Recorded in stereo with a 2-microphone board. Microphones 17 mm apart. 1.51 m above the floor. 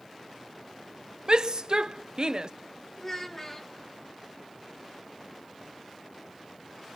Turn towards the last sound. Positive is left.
turn(degrees=20)  # may be behind; listen again after turning